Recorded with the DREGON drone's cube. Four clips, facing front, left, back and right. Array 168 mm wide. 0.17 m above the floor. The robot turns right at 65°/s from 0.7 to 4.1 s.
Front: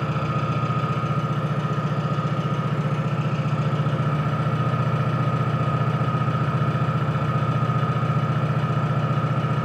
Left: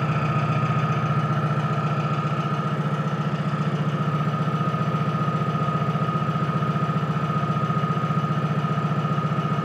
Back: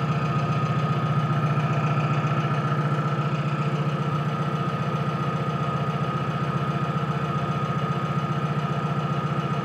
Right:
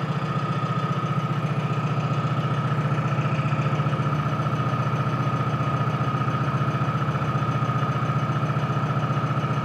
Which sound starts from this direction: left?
An engine running, at 0.0 s.